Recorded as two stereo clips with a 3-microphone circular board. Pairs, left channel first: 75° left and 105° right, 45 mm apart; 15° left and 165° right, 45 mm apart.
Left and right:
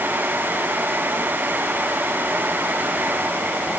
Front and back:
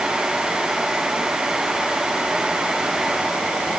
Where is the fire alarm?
I don't hear a fire alarm.